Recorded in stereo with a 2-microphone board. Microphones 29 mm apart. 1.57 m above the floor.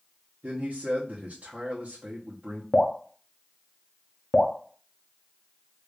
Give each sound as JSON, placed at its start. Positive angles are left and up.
{"t": 0.4, "sound": "a man speaking", "side_deg": -60, "distance_m": 0.9}
{"t": 2.7, "sound": "dripping", "side_deg": 40, "distance_m": 0.7}